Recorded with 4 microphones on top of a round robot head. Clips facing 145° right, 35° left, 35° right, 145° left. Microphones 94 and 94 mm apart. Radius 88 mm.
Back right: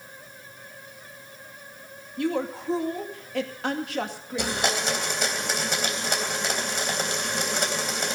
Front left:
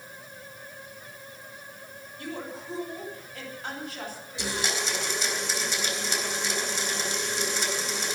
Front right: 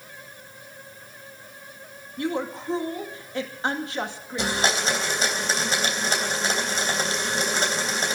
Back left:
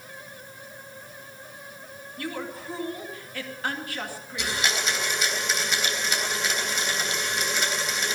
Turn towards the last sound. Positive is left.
turn(degrees=-95)